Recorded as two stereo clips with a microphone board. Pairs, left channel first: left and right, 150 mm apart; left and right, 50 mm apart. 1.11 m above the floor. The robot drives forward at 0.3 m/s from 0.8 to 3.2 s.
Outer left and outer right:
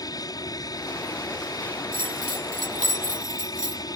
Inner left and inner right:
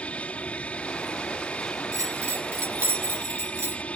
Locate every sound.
0.0 s an aircraft: 25° left (ahead or behind)
1.9 s a bell: 70° right (ahead or behind); by 3.8 s 55° right (ahead or behind)